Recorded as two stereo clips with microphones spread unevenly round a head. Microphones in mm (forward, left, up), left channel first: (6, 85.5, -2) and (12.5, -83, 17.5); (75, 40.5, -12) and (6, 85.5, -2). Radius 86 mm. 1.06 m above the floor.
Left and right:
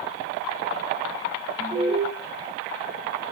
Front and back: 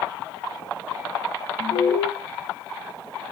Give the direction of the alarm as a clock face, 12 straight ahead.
1 o'clock.